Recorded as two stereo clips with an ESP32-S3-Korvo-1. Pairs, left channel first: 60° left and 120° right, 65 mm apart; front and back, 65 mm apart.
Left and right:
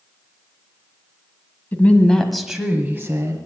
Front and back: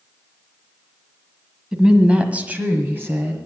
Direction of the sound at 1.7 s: 105° left.